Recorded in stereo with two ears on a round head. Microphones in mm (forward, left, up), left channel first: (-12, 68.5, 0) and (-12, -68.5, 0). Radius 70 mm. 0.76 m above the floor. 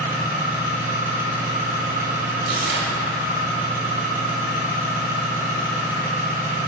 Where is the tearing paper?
60° right (ahead or behind), 1.0 m.